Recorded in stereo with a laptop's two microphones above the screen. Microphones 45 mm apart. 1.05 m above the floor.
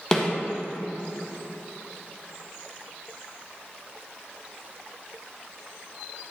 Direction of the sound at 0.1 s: 20° left (ahead or behind).